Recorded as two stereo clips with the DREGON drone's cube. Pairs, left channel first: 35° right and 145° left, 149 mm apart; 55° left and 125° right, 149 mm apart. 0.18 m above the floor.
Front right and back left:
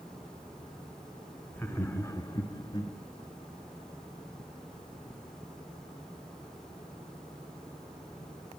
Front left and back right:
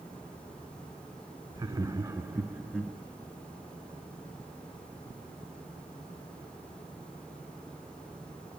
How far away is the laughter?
About 1.4 m.